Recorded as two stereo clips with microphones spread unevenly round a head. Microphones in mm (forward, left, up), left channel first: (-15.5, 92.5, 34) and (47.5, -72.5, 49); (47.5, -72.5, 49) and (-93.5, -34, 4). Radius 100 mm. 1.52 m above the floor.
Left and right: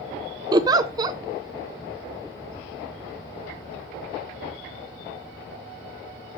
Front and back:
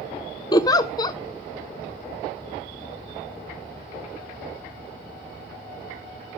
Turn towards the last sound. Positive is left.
turn(degrees=-20)